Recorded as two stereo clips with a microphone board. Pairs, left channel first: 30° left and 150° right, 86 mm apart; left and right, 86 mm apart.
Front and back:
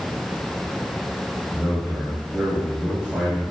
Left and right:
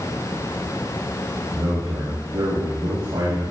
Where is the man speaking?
80° right, 5 m.